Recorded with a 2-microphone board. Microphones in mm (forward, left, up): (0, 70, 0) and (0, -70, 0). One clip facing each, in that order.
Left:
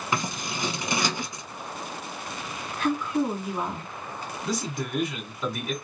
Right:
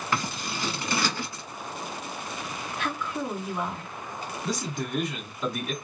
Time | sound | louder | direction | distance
0.1 | scissors | left 1 dB | 15° left (ahead or behind) | 1.0 m
2.8 | a woman speaking | left 7 dB | 35° left (ahead or behind) | 3 m
4.4 | a man speaking | left 1 dB | centre (ahead or behind) | 1.2 m